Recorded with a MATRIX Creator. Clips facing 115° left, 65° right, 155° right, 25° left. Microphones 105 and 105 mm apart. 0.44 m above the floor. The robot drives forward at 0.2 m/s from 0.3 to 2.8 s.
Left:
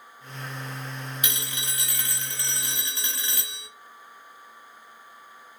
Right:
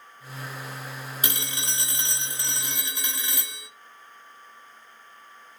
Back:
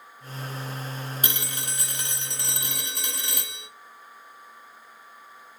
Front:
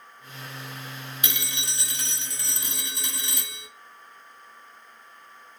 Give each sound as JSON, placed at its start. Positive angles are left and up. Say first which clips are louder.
{"t": 1.2, "sound": "a phone ringing", "louder": "right 2 dB, back 2 dB", "azimuth_deg": -115, "distance_m": 0.6}